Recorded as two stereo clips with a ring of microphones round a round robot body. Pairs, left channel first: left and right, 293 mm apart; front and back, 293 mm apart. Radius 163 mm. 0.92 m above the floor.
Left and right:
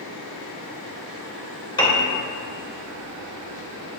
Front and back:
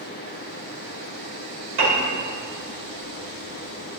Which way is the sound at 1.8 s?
165° left.